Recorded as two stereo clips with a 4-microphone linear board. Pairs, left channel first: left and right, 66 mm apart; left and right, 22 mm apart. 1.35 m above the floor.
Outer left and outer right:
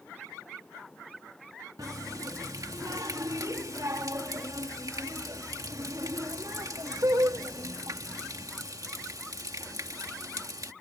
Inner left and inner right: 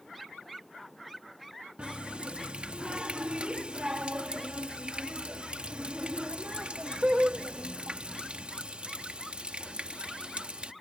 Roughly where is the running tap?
Right.